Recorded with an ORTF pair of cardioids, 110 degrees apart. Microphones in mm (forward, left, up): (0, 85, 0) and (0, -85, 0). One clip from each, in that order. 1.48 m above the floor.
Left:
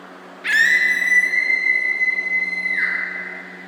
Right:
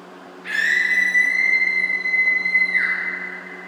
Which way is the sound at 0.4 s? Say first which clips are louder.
Left 4 dB; 55° left.